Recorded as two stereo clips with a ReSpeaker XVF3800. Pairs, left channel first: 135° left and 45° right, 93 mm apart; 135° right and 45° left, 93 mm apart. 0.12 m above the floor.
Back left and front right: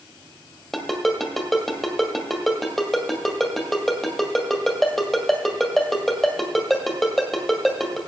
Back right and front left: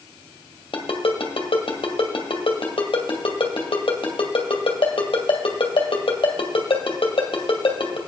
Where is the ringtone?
140° right, 2.0 m.